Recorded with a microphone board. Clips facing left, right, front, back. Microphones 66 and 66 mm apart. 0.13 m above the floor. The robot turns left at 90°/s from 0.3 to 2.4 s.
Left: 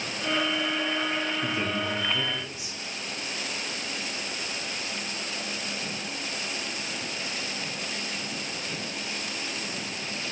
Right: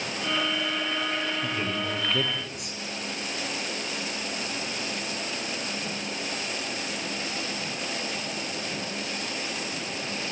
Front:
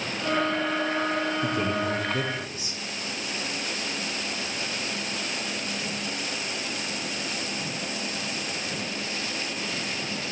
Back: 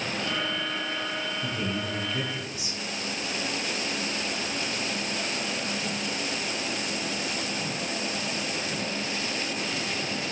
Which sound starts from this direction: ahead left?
A man speaking, at 1.4 s.